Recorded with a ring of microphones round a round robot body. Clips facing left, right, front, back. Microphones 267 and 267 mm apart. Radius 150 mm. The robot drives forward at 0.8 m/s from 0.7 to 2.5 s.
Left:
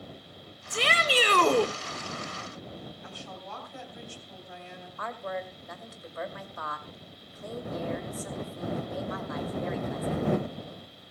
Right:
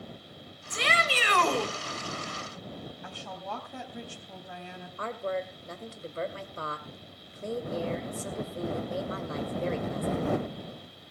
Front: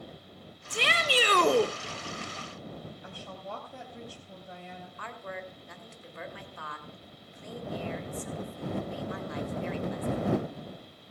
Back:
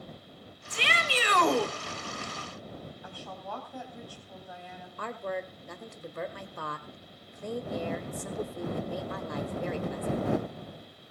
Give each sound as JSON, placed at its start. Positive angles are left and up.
{"t": 0.7, "sound": "a shout", "azimuth_deg": 35, "distance_m": 1.9}
{"t": 3.0, "sound": "a woman speaking", "azimuth_deg": -65, "distance_m": 3.5}
{"t": 5.0, "sound": "a woman speaking", "azimuth_deg": -145, "distance_m": 2.0}